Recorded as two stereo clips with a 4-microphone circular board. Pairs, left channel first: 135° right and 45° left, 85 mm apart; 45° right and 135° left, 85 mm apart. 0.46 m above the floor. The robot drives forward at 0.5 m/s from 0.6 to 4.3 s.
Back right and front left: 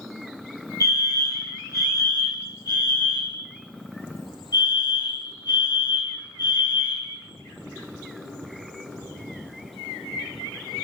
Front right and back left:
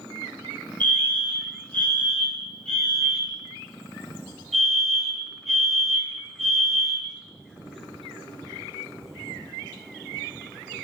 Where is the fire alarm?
105° right, 3 m; by 7.2 s 135° right, 4 m.